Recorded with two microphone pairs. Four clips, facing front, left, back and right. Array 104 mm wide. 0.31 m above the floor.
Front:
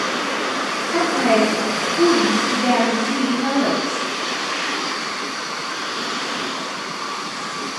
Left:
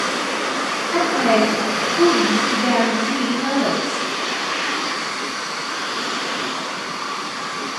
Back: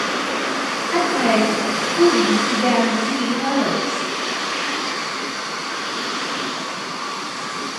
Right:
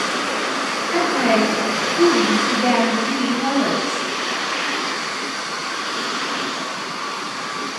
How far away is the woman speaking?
About 1.1 m.